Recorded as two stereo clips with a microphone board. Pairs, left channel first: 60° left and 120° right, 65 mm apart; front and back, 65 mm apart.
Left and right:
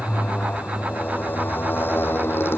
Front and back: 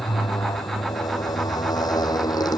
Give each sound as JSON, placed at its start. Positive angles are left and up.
{"t": 0.0, "sound": "a motorcycle", "azimuth_deg": -5}